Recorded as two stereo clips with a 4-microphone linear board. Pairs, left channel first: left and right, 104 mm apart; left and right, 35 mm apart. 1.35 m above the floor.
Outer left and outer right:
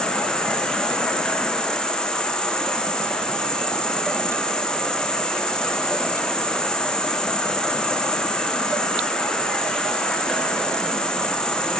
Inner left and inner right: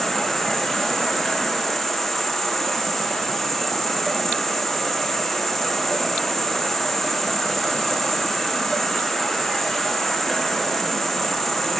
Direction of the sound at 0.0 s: 5° left (ahead or behind).